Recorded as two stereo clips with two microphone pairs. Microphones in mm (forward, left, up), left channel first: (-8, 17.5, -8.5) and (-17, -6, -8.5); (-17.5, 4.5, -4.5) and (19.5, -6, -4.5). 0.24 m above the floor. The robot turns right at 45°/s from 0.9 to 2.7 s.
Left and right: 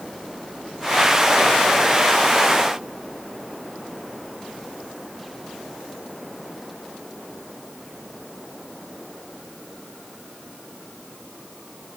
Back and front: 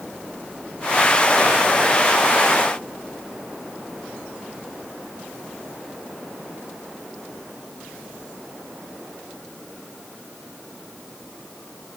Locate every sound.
Only background noise.